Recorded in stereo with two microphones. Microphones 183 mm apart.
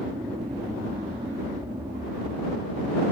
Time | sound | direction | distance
0.0 | an aircraft | 20° right (ahead or behind) | ?